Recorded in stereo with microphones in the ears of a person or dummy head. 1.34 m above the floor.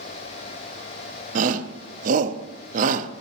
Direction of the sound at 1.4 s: 45° right (ahead or behind).